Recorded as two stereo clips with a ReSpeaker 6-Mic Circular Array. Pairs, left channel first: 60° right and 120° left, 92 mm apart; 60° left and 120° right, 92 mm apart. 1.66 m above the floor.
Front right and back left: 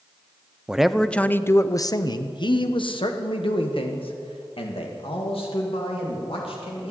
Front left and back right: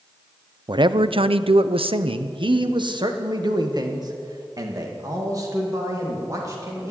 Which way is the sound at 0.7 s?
160° right.